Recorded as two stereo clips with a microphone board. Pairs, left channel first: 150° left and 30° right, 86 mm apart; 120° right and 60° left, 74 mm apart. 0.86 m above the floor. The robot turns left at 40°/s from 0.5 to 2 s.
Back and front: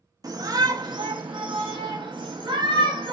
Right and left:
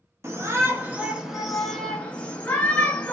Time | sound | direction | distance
0.2 | a shout | 10° left | 1.0 m